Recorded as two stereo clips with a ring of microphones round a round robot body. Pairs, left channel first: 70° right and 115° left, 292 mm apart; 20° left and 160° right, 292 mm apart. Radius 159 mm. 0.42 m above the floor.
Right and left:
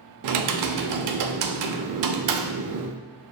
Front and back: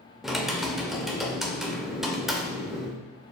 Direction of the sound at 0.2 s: 115° left.